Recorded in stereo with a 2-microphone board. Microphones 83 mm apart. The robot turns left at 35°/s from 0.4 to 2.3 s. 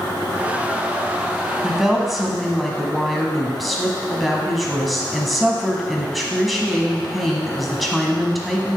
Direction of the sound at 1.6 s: 10° right (ahead or behind).